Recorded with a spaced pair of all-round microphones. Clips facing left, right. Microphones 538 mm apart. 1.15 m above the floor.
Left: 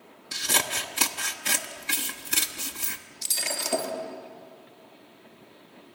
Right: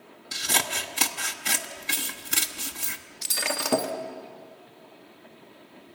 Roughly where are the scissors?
Centre.